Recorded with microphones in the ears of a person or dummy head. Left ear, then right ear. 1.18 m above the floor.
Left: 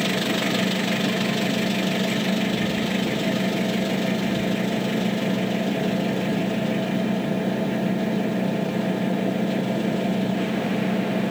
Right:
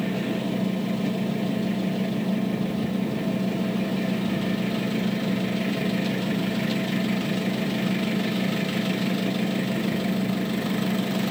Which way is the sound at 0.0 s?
55° left (ahead or behind).